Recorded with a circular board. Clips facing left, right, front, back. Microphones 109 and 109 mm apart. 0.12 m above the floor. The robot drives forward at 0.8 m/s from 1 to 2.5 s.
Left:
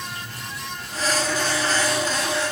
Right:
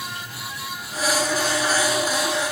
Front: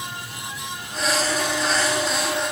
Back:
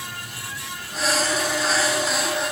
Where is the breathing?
I don't hear breathing.